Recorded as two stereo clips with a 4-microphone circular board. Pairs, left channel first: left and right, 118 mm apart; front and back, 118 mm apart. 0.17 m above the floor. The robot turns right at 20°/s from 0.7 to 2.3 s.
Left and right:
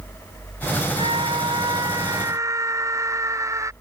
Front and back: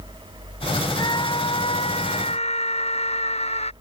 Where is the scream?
55° right; by 3.7 s 25° right.